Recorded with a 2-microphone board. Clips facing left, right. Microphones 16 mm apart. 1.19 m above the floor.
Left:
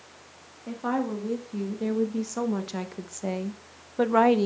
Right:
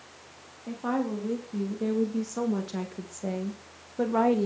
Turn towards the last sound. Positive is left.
turn(degrees=45)  # may be behind; listen again after turning